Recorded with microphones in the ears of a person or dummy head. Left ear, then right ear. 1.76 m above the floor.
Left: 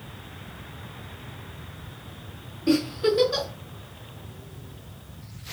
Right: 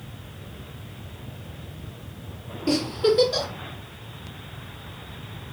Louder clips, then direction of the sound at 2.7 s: Right 1 dB; 25° left (ahead or behind).